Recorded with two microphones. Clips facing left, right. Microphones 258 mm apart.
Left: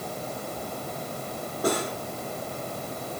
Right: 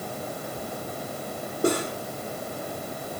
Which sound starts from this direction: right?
Cutlery clinking, at 1.6 s.